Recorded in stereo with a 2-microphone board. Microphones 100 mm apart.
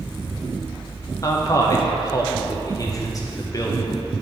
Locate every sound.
1.2 s a man speaking: 35° left (ahead or behind), 0.7 m